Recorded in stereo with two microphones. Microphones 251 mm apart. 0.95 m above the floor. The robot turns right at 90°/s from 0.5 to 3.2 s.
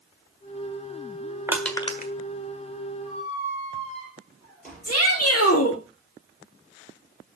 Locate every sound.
1.5 s crushing: 10° right (ahead or behind), 1.5 m; by 2.1 s 45° left (ahead or behind), 1.5 m
3.0 s a squeak: 45° left (ahead or behind), 6.5 m; by 5.5 s 30° left (ahead or behind), 6.5 m
4.8 s a shout: 70° left (ahead or behind), 2 m